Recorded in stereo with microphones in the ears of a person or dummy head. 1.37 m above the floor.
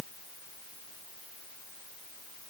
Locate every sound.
Only background noise.